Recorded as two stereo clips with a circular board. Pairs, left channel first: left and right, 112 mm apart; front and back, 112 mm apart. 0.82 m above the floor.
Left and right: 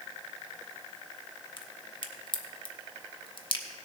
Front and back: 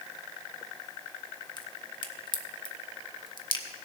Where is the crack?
45° left, 0.9 m.